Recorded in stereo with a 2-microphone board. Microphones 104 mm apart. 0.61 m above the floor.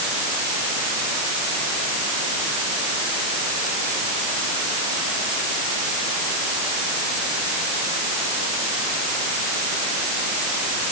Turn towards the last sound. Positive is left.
No sound to turn to.